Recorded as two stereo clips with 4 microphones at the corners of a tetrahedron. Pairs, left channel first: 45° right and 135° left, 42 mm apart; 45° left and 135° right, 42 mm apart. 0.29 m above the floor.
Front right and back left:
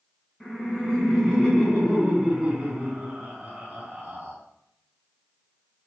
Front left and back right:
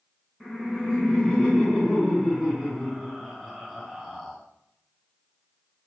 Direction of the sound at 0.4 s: Straight ahead.